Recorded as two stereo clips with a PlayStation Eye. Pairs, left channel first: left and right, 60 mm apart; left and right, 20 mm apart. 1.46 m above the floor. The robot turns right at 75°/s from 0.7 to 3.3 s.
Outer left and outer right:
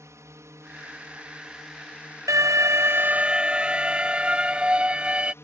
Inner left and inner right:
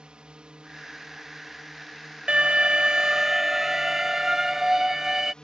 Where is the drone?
70° right; by 5.4 s 125° left.